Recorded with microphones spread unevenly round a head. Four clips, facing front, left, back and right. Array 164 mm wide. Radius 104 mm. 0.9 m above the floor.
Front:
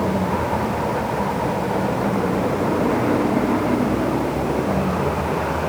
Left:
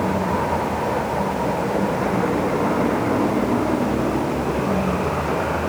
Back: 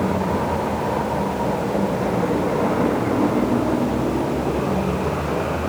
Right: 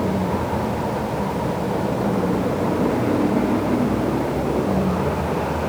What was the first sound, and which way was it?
Only background noise.